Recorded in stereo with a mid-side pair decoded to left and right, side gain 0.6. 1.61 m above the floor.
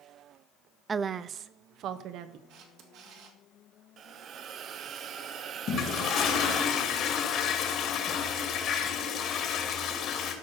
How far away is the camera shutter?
About 2 m.